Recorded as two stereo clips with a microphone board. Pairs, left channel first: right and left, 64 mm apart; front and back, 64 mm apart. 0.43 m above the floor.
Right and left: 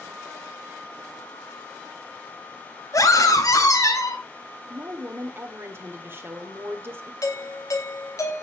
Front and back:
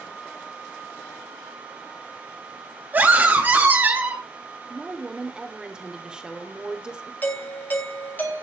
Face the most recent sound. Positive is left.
turn(degrees=-60)